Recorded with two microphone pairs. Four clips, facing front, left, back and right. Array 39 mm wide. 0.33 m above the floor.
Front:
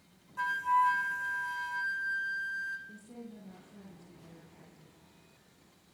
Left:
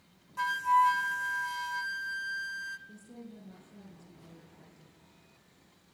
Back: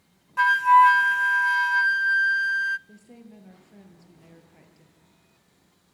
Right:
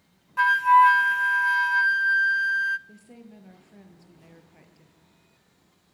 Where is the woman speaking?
120° right, 7.5 m.